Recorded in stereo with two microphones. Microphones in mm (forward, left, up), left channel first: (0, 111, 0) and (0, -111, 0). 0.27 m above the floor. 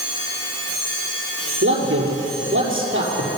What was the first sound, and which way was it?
A man speaking, 65° right (ahead or behind).